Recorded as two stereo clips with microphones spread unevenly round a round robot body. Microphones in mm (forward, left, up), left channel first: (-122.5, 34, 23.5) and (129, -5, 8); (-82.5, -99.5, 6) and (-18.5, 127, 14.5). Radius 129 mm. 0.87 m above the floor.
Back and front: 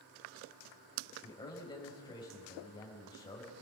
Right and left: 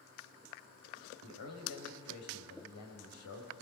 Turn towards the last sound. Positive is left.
turn(degrees=-115)